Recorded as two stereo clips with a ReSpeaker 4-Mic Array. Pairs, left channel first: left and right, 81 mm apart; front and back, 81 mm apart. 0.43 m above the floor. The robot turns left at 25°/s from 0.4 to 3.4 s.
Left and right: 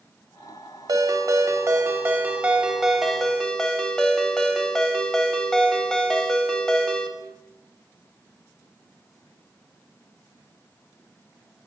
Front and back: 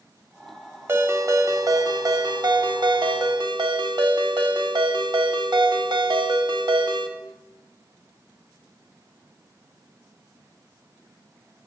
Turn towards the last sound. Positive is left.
turn(degrees=175)